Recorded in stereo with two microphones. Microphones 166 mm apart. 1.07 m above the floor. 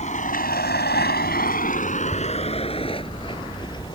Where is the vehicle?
45° left (ahead or behind); by 4.0 s 25° left (ahead or behind).